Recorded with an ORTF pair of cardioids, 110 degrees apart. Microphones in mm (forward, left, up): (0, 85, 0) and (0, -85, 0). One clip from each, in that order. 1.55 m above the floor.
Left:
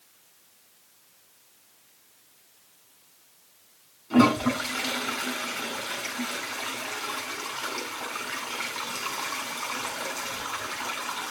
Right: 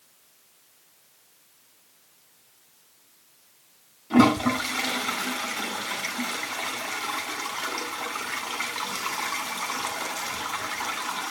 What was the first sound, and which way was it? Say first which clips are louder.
A toilet flushing: right 1 dB; 20° right.